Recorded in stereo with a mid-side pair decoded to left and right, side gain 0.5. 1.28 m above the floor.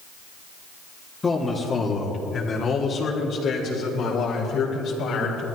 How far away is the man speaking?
About 2.5 m.